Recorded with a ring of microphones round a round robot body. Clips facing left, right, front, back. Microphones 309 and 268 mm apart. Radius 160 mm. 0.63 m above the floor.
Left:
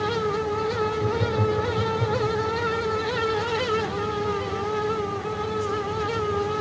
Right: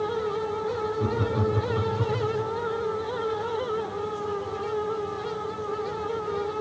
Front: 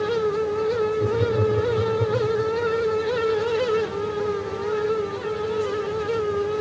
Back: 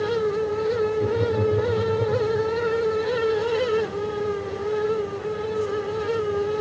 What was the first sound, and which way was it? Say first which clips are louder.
Laughter: left 2 dB, front 1 dB; 95° right.